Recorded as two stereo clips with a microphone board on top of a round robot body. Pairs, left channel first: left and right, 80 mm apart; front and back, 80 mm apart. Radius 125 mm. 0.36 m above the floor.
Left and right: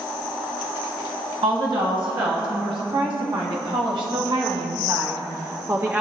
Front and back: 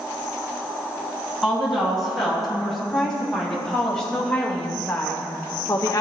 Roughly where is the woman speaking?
Right.